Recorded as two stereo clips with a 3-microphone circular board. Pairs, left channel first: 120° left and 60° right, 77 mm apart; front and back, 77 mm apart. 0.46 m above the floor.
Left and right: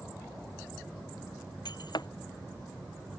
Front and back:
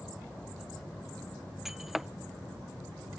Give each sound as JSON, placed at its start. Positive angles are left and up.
{"t": 1.6, "sound": "breaking glass", "azimuth_deg": 95}